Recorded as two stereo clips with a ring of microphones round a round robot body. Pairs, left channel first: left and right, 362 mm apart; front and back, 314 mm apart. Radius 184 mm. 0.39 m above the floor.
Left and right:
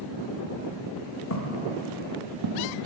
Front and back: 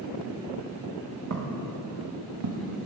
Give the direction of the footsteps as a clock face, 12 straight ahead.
7 o'clock.